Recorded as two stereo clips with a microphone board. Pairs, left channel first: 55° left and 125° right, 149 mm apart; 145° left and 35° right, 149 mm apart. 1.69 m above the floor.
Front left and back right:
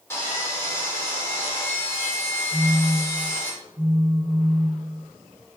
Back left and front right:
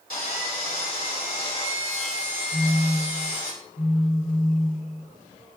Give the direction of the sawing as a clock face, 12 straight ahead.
8 o'clock.